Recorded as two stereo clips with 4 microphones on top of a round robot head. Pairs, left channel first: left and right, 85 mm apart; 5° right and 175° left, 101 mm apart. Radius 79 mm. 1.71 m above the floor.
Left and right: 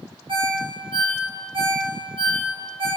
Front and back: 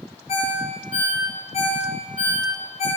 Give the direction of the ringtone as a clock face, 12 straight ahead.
1 o'clock.